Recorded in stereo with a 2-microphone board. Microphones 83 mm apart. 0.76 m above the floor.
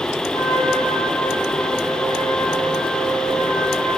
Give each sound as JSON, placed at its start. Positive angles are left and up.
{"t": 0.3, "sound": "a trumpet", "side_deg": 40, "distance_m": 3.5}